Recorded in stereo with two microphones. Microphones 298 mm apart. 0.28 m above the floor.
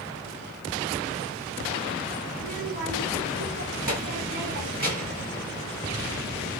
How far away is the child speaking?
About 1.7 m.